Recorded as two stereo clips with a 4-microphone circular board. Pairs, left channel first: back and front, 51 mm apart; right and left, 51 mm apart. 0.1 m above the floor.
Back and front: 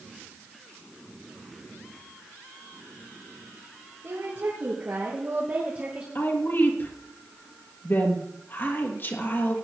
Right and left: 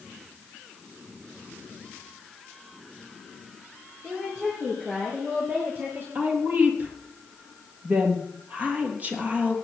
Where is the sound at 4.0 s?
25° left, 4 m; by 6.0 s 60° left, 2 m.